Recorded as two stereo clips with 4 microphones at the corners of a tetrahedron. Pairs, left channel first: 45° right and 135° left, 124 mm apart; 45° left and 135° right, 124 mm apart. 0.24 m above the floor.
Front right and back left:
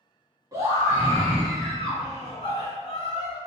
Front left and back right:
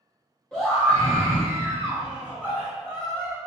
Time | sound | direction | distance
0.5 | a scream | 125° left | 1.6 m